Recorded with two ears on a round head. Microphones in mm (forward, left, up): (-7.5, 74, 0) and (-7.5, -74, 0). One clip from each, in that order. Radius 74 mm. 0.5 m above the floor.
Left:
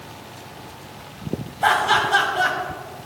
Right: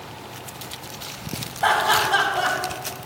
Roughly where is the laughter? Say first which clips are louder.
Left 1 dB; centre.